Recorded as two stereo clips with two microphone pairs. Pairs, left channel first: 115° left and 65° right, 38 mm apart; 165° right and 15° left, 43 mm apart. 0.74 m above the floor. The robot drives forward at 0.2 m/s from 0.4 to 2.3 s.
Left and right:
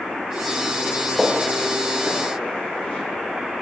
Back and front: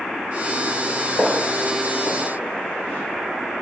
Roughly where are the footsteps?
Behind right.